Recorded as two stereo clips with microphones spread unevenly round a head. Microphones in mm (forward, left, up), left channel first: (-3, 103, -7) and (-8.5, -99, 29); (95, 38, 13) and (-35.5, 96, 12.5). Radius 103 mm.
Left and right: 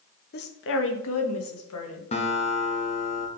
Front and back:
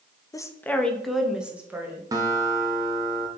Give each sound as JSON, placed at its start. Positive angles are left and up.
{"t": 0.3, "sound": "a woman speaking", "azimuth_deg": 45, "distance_m": 0.7}
{"t": 2.1, "sound": "a guitar", "azimuth_deg": 130, "distance_m": 0.8}